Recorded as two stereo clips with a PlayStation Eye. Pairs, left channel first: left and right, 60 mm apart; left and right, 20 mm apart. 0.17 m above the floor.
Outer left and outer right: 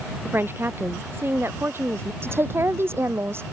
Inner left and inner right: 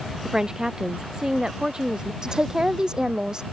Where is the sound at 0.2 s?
35° right (ahead or behind); by 2.1 s 40° right (ahead or behind).